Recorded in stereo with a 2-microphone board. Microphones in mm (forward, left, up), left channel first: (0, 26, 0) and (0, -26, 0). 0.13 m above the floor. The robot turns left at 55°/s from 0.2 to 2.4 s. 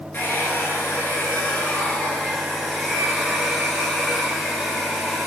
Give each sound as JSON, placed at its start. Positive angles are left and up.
{"t": 0.1, "sound": "a hair dryer", "azimuth_deg": 120, "distance_m": 1.7}